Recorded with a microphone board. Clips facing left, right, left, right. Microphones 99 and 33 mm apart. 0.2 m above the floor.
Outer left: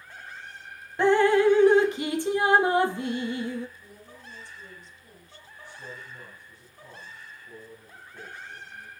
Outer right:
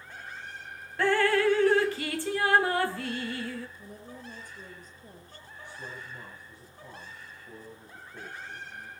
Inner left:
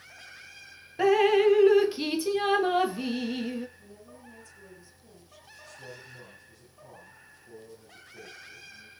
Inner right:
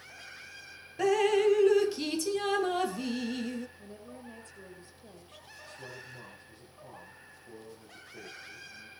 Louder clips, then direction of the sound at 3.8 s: Outer right 4 dB, inner right 3 dB; 45° right (ahead or behind).